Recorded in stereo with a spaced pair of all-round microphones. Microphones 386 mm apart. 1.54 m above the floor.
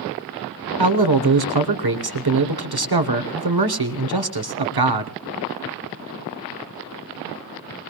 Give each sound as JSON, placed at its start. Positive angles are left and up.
{"t": 0.8, "sound": "a man speaking", "side_deg": -70, "distance_m": 1.2}